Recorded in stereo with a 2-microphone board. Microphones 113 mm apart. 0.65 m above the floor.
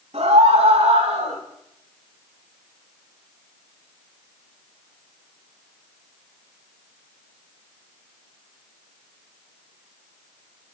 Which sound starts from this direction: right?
A scream, at 0.1 s.